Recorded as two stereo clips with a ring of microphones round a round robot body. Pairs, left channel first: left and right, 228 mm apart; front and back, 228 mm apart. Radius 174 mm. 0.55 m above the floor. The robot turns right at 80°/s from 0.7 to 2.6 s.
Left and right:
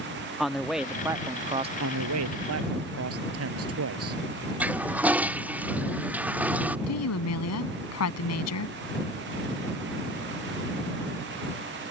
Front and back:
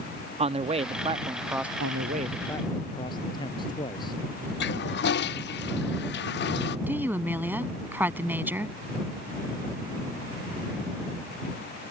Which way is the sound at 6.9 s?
100° left.